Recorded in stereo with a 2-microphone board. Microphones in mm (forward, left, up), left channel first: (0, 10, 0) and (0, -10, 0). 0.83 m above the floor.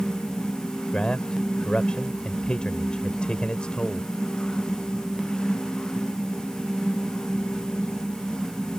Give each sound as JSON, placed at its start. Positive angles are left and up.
{"t": 0.9, "sound": "a man speaking", "side_deg": 50}